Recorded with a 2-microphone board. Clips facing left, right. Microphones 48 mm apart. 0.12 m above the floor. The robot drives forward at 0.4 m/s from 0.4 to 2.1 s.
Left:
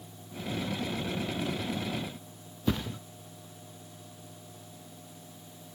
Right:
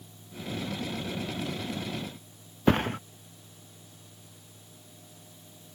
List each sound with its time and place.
2.7 s a thud: 55° right (ahead or behind)